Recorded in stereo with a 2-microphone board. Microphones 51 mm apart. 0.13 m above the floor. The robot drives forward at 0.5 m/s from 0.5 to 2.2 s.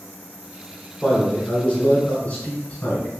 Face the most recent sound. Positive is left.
turn(degrees=35)  # may be behind; listen again after turning